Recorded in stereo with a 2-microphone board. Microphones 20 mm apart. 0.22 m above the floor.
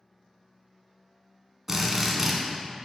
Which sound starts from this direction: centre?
A drill, at 1.7 s.